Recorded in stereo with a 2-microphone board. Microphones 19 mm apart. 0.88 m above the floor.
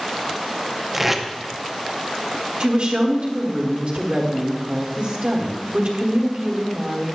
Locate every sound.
0.9 s tape being pulled: 10° right (ahead or behind), 0.6 m
2.6 s a woman speaking: 60° right (ahead or behind), 1.5 m